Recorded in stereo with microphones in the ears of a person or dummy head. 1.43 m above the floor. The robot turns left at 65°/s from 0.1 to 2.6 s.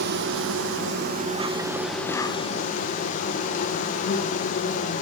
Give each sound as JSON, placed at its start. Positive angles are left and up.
{"t": 0.0, "sound": "an insect", "azimuth_deg": -60, "distance_m": 0.8}